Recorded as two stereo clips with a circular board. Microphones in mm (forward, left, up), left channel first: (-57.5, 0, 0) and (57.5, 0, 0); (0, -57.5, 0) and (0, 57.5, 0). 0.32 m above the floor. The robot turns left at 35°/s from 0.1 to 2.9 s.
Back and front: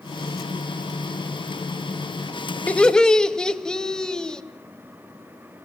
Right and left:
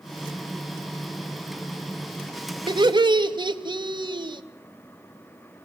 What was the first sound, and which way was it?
Laughter, 105° left.